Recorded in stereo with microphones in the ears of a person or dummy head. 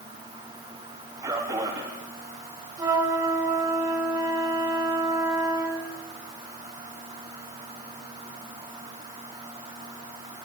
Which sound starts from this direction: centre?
A flute, at 2.8 s.